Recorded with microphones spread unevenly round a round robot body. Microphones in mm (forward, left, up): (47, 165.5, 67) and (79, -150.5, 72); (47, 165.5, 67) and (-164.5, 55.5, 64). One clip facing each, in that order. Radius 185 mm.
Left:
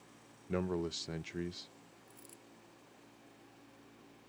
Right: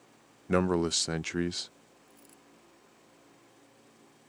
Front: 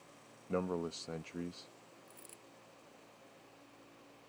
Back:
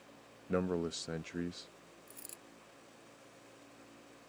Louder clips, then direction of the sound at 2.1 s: Right 1 dB, back 2 dB; straight behind.